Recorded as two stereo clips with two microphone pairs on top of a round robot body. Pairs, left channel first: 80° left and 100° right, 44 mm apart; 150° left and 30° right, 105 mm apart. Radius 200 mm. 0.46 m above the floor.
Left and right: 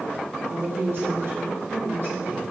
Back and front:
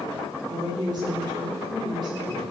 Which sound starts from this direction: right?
A woman speaking, at 0.5 s.